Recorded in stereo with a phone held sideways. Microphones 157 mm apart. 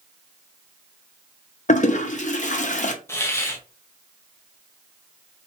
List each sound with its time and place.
1.7 s a toilet flushing: 50° left (ahead or behind), 0.5 m
3.1 s a hiss: 15° left (ahead or behind), 0.6 m